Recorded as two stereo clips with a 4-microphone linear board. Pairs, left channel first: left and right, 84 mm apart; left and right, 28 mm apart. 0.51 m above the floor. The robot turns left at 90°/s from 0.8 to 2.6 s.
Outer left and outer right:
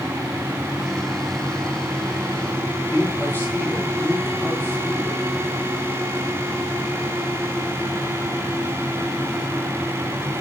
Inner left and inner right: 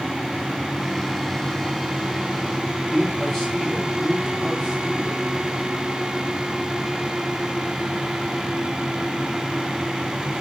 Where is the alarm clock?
I don't hear an alarm clock.